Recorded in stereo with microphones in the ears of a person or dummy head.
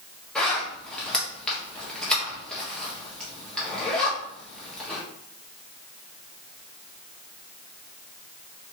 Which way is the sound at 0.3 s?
Centre (ahead or behind).